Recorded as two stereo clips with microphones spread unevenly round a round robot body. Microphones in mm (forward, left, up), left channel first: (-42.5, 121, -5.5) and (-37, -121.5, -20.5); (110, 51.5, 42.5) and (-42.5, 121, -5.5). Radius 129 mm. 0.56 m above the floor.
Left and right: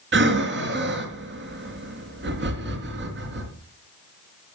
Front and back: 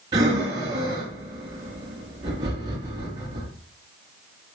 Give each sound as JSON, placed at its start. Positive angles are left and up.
{"t": 0.1, "sound": "breathing", "azimuth_deg": -130, "distance_m": 3.5}